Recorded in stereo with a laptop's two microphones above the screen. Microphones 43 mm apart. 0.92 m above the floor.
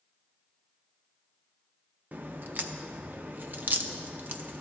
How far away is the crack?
About 0.6 m.